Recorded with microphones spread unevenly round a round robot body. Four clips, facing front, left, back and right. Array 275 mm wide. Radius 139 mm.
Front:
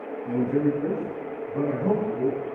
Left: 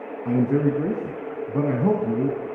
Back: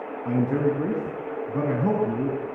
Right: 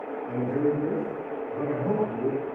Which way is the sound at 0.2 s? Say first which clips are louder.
Left 5 dB, even; 110° left.